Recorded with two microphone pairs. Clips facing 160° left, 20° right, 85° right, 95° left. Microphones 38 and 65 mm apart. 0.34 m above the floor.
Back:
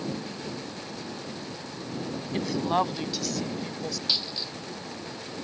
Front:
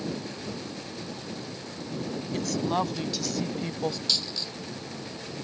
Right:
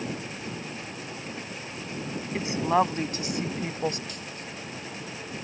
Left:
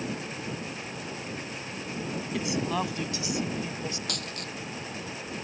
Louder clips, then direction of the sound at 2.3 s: Back 2 dB, right 6 dB; 140° right.